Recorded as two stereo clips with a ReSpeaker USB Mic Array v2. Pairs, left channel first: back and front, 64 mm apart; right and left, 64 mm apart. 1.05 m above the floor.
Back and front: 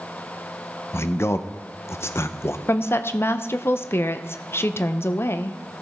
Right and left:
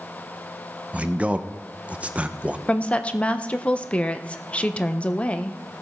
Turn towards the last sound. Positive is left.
turn(degrees=-150)